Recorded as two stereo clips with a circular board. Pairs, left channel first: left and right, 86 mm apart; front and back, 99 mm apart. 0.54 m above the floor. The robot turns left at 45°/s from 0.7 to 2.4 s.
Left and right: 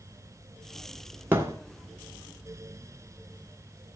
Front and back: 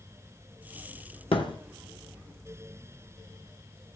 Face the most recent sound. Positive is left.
turn(degrees=-75)